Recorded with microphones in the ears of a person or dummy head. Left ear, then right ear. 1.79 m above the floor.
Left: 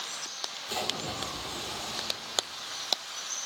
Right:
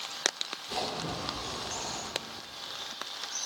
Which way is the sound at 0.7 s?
45° left (ahead or behind).